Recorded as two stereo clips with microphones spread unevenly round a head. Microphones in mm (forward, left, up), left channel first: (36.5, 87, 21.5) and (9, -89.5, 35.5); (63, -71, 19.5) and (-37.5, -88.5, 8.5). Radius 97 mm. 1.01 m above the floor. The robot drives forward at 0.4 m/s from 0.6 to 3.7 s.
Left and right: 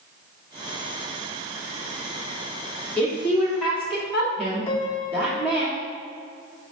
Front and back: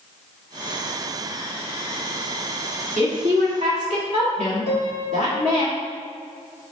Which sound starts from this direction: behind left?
A piano, at 4.7 s.